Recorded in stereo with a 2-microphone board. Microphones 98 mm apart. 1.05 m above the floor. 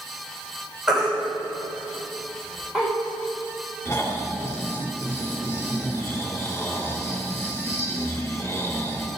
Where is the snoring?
35° left (ahead or behind), 2.5 m.